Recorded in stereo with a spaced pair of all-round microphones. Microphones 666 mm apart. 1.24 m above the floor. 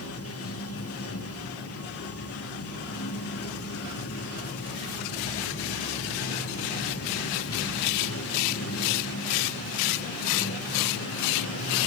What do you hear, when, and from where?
0.0 s running water: 20° left (ahead or behind), 1.0 m